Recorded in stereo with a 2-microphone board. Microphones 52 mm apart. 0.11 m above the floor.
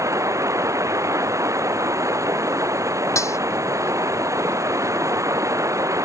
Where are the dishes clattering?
70° left (ahead or behind).